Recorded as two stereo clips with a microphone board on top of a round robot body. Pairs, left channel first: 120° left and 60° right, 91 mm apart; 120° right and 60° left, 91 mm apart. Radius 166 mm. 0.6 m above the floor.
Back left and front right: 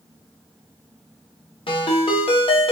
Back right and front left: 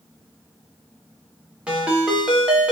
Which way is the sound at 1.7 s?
140° left.